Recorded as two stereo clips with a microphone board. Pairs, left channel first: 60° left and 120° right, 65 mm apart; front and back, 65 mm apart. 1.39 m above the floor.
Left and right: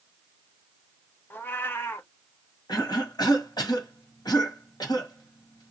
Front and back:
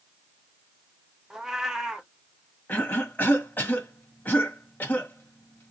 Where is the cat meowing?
100° left, 0.8 m.